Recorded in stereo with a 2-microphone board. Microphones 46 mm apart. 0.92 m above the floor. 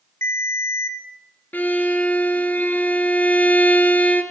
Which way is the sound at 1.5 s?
40° left (ahead or behind).